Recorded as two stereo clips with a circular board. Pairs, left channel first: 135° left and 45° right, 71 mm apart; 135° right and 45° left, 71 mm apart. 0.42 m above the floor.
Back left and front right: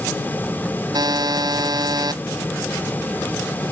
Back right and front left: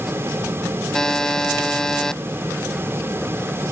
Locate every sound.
0.9 s a buzzer: 55° right